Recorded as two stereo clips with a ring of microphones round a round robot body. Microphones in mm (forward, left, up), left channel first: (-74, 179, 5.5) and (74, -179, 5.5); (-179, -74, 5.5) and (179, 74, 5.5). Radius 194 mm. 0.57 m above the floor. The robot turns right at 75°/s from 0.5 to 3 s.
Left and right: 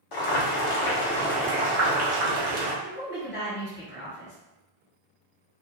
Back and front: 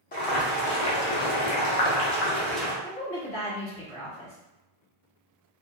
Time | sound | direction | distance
0.1 | boiling | 135° left | 0.8 m
2.8 | a woman speaking | 150° left | 1.4 m